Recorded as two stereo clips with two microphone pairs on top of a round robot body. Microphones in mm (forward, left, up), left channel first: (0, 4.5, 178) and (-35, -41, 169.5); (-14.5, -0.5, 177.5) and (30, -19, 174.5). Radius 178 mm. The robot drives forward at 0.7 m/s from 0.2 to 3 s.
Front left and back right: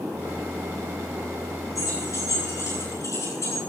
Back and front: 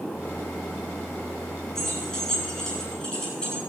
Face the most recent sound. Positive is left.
turn(degrees=85)